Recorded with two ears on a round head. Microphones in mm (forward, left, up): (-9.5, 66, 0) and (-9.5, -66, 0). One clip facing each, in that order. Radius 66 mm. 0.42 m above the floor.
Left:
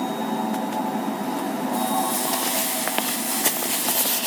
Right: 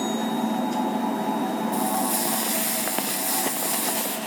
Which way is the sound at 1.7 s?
55° right (ahead or behind).